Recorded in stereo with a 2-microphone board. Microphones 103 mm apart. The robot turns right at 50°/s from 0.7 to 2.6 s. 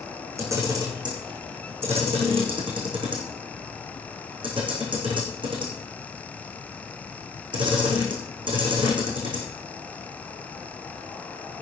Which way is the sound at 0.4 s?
30° right (ahead or behind).